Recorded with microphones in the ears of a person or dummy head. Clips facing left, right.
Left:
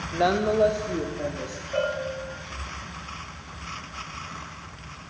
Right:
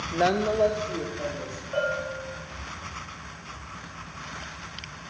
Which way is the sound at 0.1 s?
10° right (ahead or behind).